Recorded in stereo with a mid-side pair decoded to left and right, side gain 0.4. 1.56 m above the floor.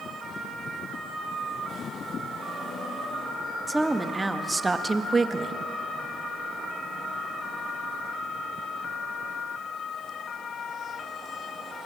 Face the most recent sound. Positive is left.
turn(degrees=-45)